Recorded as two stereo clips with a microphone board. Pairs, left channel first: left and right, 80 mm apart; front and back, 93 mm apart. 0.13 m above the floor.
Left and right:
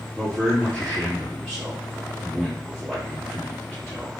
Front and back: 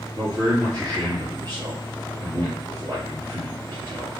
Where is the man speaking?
175° right, 2 m.